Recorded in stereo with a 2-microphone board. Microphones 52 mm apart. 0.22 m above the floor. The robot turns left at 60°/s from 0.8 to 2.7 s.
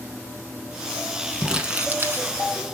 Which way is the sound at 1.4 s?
10° right.